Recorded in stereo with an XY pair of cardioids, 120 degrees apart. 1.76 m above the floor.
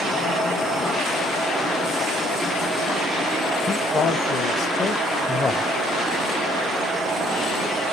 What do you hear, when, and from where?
3.7 s a man speaking: 45° left, 2 m; by 5.7 s 25° left, 0.9 m